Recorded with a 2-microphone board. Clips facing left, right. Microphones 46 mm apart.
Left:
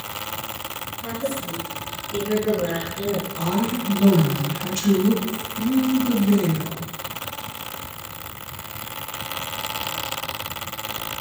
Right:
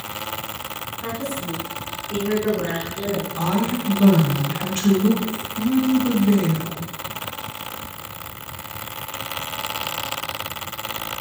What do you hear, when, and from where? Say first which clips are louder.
1.0 s a woman speaking: left 1 dB; 70° right (ahead or behind), 3.5 m
3.4 s a woman speaking: right 1 dB; 40° right (ahead or behind), 2.5 m